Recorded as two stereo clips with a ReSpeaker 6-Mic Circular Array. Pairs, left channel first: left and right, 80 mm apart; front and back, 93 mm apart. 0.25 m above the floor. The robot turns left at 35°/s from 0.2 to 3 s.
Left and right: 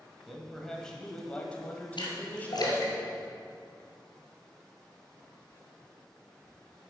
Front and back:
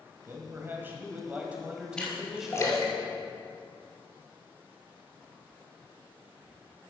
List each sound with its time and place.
0.3 s a man speaking: 175° left, 1.3 m; by 3.0 s 80° left, 1.3 m
2.0 s a splash: 80° left, 2.5 m; by 3.8 s 45° left, 2.5 m